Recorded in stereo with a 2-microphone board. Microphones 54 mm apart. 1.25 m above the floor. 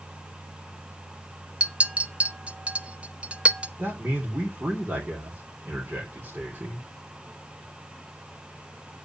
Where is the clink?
25° right (ahead or behind), 0.7 m.